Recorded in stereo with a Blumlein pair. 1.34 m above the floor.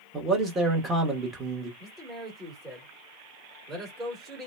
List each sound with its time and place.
0.1 s a man speaking: 15° right, 1.2 m
1.8 s a man speaking: 20° right, 1.6 m